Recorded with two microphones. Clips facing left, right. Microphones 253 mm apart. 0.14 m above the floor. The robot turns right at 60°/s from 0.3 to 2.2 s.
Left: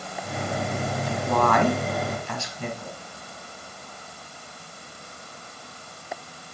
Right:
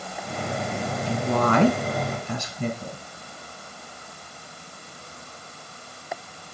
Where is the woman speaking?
25° right (ahead or behind), 1.4 m; by 3.0 s 20° right (ahead or behind), 1.4 m.